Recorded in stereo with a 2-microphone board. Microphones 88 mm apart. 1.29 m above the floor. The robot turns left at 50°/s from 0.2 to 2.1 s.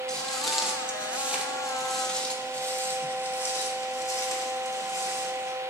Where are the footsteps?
10° left (ahead or behind), 1.5 m; by 5.5 s 40° left (ahead or behind), 3 m.